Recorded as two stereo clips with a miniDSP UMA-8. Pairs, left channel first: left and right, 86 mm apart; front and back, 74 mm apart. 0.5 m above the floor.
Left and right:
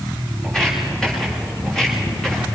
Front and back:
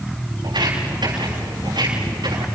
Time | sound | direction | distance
0.4 | footsteps | 175° left | 9 m